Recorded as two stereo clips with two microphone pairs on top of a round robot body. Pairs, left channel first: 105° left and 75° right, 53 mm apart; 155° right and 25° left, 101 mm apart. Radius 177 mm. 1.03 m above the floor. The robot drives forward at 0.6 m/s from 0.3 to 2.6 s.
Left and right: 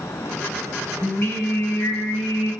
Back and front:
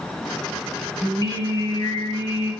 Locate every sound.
1.0 s singing: 155° left, 2 m; by 2.5 s 165° left, 3 m